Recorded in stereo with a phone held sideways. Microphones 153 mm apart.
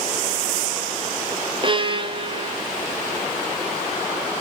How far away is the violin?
About 0.5 m.